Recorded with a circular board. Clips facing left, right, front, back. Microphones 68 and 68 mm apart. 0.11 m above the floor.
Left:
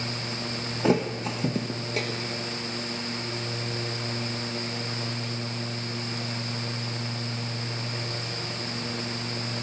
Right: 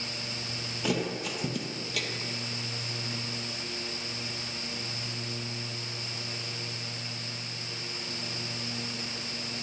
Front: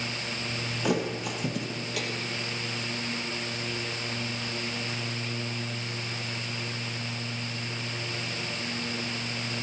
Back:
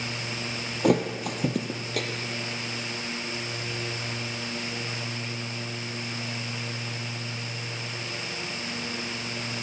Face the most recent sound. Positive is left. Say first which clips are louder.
# left 6 dB, back 5 dB
turn(degrees=145)